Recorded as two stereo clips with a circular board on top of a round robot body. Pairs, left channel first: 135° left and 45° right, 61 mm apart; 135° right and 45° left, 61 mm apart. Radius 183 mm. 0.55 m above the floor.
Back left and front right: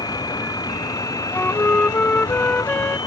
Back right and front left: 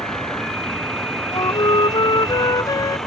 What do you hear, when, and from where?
0.0 s a vehicle: 145° left; by 3.1 s 140° left
1.3 s a flute: 155° right